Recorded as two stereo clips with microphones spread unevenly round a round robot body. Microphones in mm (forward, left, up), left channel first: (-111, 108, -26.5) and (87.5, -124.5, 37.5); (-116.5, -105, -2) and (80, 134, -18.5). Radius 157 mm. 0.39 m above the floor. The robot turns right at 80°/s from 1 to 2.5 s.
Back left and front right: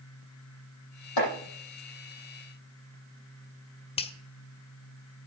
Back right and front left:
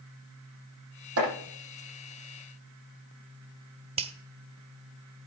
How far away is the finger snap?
About 1.0 m.